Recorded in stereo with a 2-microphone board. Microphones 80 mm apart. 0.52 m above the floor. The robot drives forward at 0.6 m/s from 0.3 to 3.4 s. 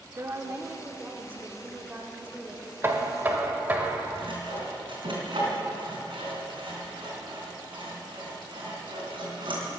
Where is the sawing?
75° right (ahead or behind), 3.5 m.